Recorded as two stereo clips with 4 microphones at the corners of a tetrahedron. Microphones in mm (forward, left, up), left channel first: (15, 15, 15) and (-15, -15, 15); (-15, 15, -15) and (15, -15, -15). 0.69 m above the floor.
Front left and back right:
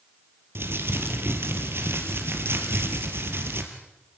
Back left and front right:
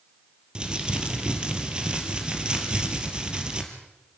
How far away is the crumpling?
About 3 m.